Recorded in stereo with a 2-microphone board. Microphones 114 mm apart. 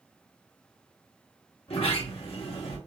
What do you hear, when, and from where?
1.7 s a sliding door: 60° left (ahead or behind), 1.9 m